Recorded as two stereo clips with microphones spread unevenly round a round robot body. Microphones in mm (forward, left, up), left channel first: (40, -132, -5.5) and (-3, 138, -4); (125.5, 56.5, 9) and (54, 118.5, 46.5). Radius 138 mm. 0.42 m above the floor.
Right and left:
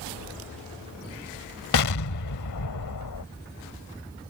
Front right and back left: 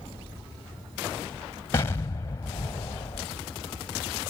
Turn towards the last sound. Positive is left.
turn(degrees=-105)